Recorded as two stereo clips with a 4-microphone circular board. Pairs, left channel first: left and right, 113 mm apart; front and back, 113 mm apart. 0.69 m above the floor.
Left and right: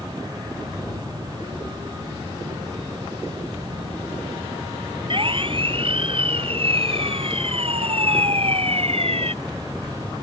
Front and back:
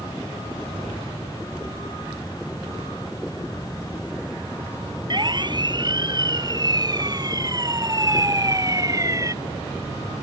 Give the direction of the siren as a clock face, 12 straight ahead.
4 o'clock.